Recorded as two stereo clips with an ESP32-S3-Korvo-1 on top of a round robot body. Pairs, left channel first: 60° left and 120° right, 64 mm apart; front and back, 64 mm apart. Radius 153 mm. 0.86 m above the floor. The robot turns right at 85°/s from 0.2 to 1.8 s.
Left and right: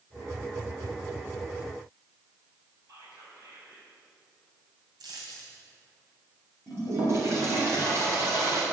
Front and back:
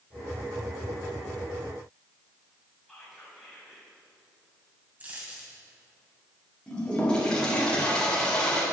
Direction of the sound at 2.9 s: 90° right.